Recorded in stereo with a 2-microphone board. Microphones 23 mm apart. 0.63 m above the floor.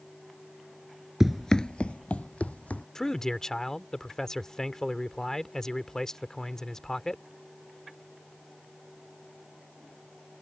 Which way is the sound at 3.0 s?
20° left (ahead or behind).